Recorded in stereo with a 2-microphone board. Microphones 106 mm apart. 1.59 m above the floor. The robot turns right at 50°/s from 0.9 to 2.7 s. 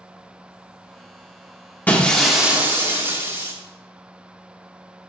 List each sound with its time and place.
1.9 s breaking glass: 160° left, 1.8 m; by 3.5 s 155° right, 1.8 m